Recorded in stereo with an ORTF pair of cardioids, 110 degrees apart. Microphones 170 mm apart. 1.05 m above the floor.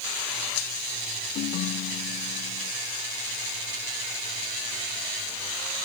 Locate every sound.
1.4 s a ringtone: 60° left